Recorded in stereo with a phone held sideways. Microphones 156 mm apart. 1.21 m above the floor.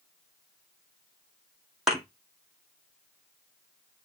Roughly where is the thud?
Centre.